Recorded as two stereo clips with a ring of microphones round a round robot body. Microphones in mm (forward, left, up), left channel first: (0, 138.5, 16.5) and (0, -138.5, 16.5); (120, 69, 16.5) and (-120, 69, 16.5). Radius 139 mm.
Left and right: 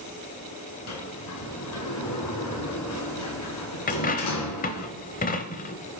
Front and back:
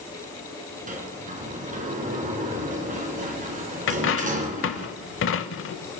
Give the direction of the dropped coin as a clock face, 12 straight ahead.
11 o'clock.